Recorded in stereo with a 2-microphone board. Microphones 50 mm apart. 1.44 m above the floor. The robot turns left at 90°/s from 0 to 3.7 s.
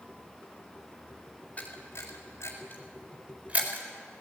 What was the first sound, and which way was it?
A camera shutter, 30° left (ahead or behind).